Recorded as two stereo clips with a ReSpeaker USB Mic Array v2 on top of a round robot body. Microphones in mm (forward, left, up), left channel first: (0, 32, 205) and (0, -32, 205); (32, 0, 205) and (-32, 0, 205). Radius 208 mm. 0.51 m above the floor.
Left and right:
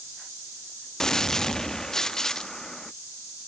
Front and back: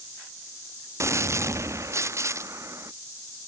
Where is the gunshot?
170° left.